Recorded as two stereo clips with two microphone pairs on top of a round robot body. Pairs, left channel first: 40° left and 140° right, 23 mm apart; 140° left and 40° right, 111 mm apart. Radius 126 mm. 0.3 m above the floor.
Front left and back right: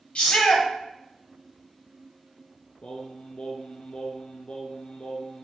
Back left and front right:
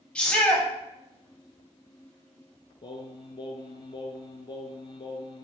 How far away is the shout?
About 3 m.